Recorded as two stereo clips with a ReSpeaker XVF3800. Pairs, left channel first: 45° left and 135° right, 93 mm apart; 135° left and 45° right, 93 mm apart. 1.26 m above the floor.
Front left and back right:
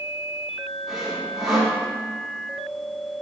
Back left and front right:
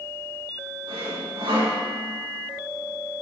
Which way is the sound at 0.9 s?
50° right.